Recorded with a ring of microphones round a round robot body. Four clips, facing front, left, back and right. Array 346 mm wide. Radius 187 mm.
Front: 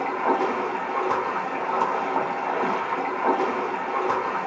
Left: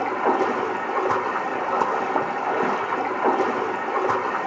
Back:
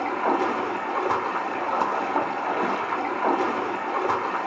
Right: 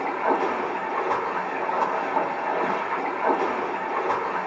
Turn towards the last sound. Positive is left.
turn(degrees=100)